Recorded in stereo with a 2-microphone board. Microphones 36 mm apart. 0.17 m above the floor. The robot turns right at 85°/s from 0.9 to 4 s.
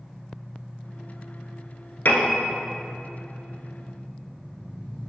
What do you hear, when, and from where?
2.0 s a piano: 60° left (ahead or behind), 1.0 m; by 2.4 s 65° left (ahead or behind), 1.0 m